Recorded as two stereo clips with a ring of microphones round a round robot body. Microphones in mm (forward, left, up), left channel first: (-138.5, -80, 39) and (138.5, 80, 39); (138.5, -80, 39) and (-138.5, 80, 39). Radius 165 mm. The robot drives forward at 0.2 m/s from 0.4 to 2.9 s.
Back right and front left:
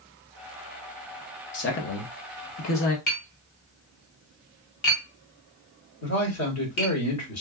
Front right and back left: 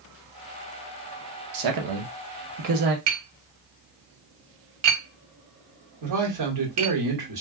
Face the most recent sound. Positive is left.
turn(degrees=170)